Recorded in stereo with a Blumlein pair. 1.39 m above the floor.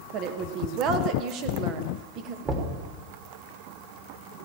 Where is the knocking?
20° right, 3 m.